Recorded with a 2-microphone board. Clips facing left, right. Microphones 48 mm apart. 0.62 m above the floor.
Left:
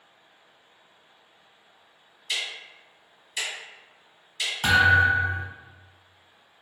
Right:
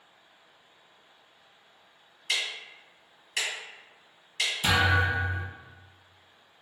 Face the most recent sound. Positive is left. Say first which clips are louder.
# left 7 dB
turn(degrees=55)  # may be behind; listen again after turning